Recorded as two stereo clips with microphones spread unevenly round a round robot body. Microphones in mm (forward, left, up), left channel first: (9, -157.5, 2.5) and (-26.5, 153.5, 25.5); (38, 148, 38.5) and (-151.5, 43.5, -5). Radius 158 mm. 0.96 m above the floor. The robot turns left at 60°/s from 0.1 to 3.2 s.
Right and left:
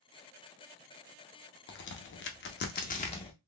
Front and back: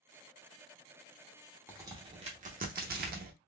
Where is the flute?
I don't hear a flute.